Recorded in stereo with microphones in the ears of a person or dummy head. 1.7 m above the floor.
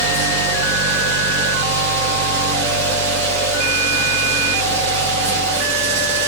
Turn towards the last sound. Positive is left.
turn(degrees=-75)  # may be behind; listen again after turning